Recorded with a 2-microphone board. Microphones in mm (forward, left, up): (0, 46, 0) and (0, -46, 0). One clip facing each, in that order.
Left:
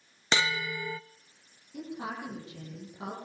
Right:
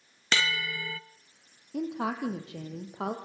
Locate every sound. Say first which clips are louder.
0.3 s a bell: left 1 dB; 20° left (ahead or behind), 0.5 m
1.7 s a woman speaking: right 6 dB; 65° right (ahead or behind), 4.5 m